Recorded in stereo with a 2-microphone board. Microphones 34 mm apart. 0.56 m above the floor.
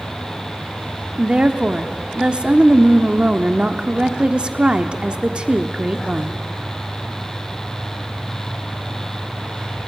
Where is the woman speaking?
30° right (ahead or behind), 1.2 m.